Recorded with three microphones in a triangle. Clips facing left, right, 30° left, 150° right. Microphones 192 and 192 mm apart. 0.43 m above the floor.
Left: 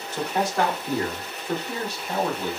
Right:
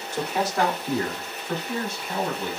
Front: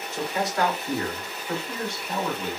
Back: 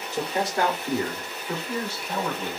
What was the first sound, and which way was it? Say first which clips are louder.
A man speaking: left 1 dB, back 1 dB; 160° right.